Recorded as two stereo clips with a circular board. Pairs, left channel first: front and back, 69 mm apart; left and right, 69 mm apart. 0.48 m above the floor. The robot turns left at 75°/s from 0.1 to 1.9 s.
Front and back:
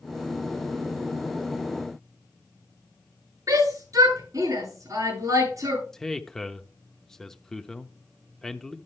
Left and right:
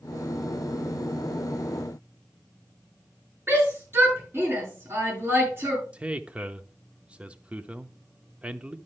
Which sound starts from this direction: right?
A man speaking, at 5.9 s.